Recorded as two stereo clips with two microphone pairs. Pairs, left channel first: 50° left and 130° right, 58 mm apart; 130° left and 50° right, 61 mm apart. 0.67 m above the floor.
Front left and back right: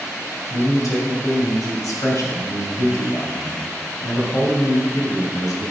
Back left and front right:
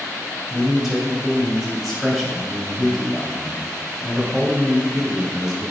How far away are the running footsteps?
I don't hear running footsteps.